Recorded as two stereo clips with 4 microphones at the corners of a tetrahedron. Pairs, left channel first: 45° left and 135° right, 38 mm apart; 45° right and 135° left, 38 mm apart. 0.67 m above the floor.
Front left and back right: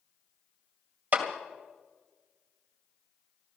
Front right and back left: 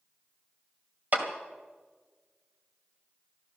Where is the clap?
Straight behind, 2 m.